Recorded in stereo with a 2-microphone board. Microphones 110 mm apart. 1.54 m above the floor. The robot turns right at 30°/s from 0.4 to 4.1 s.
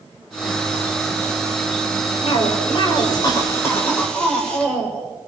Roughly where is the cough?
Behind left.